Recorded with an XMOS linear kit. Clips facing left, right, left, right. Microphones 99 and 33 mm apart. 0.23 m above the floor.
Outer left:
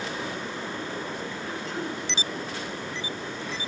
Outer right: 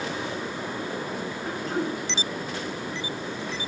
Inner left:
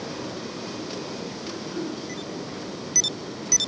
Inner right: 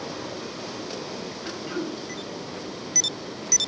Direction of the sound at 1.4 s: 45° right (ahead or behind).